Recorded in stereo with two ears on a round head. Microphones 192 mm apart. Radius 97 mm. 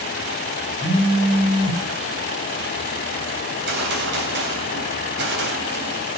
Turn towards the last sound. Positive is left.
turn(degrees=-45)  # may be behind; listen again after turning